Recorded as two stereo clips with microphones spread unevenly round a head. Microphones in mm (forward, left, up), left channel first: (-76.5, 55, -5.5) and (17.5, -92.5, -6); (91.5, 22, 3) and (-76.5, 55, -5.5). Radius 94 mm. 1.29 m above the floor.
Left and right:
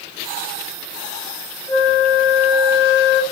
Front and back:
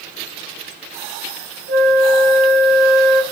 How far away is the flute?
About 0.7 m.